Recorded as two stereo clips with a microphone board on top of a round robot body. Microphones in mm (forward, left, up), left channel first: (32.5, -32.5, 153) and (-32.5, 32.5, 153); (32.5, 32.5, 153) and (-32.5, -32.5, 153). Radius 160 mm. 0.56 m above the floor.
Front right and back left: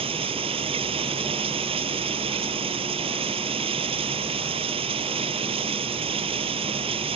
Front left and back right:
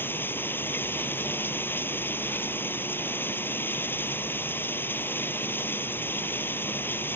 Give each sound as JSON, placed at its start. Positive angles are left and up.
{"t": 0.0, "sound": "running water", "azimuth_deg": 115}